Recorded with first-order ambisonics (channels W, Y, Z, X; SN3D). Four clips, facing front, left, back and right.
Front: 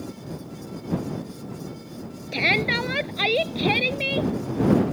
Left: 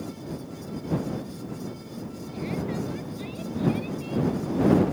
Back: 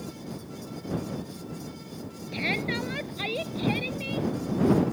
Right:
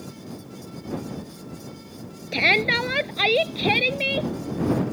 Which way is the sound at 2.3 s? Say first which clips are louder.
Right 13 dB, front 8 dB; 65° right.